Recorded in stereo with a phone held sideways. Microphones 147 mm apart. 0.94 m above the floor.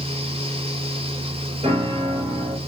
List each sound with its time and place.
0.0 s a fan: 40° right (ahead or behind), 1.4 m
1.6 s a piano: 40° right (ahead or behind), 3 m